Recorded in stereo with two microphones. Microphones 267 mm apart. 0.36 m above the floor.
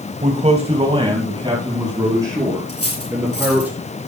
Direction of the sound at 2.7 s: 60° left (ahead or behind).